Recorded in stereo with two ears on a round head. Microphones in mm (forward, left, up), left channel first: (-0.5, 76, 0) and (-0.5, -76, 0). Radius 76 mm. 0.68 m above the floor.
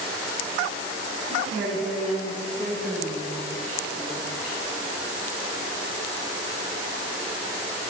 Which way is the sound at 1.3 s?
5° right (ahead or behind).